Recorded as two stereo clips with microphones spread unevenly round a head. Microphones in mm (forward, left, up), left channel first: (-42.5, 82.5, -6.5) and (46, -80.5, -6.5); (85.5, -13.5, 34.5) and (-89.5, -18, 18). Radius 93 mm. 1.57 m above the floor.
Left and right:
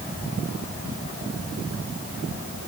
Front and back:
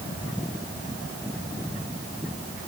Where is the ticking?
No ticking in this recording.